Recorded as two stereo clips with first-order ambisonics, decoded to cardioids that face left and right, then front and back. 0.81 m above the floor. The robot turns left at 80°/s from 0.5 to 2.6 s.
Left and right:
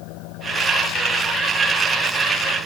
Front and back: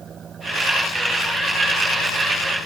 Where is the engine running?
115° left; by 2.7 s 55° right.